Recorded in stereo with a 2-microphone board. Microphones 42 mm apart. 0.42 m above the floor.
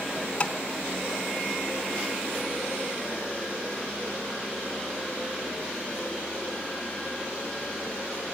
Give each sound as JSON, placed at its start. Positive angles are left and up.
{"t": 0.4, "sound": "tapping", "side_deg": 30, "distance_m": 1.2}